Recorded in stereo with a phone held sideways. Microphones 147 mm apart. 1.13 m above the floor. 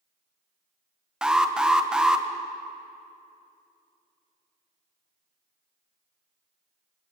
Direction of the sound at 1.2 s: 5° right (ahead or behind).